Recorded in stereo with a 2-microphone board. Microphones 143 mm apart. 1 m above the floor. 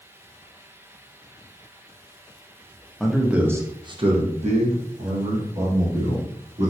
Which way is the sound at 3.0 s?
5° left (ahead or behind).